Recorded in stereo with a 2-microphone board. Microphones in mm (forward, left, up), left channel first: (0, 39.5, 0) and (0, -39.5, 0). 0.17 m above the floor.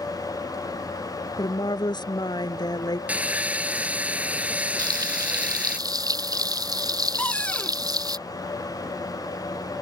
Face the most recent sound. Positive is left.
turn(degrees=15)  # may be behind; listen again after turning